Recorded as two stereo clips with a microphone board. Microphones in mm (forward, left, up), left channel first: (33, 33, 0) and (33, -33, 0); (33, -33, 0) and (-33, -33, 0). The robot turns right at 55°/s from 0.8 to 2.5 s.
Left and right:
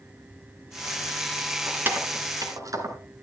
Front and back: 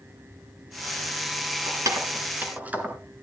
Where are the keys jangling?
160° right, 2.5 m; by 3.0 s 110° right, 2.5 m.